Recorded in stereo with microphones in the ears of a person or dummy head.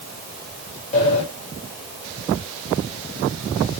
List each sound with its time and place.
0.9 s a sliding door: 35° left (ahead or behind), 2.5 m